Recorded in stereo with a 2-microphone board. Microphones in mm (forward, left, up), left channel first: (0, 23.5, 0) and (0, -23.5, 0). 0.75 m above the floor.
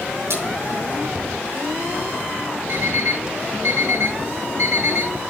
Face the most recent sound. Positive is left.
turn(degrees=-90)